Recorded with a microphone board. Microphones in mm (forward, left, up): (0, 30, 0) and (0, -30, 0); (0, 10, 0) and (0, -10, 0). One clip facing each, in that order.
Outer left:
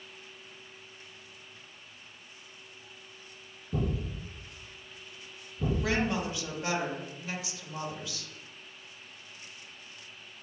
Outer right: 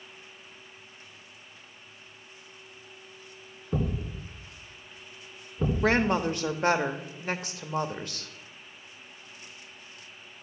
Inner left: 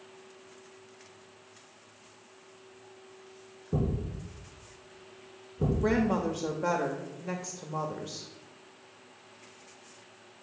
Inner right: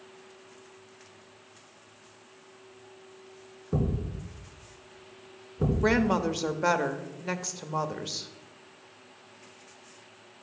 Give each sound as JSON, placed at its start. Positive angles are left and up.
{"t": 3.7, "sound": "a thud", "side_deg": -50, "distance_m": 4.0}
{"t": 5.8, "sound": "a woman speaking", "side_deg": -50, "distance_m": 0.9}